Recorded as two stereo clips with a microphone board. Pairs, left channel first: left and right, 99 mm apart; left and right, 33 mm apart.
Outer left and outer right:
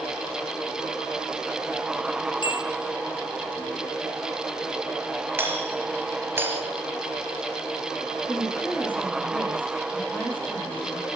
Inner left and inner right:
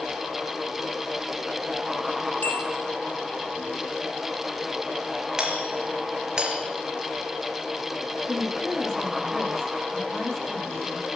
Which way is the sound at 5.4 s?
25° right (ahead or behind).